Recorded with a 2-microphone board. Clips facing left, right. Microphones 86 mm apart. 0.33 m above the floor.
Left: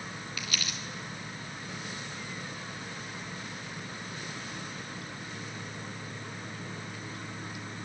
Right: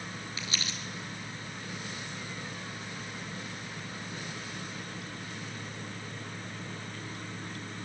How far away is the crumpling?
About 3.5 m.